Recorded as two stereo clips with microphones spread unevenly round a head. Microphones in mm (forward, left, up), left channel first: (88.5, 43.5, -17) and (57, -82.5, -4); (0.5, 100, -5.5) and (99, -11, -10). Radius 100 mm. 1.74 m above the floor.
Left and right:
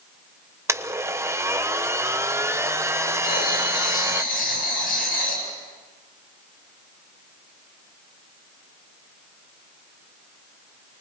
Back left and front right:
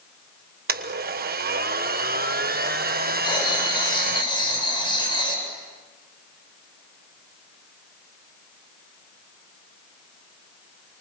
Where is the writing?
75° left, 8.5 m.